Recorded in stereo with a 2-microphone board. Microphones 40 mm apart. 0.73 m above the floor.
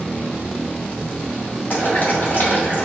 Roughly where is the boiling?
Left.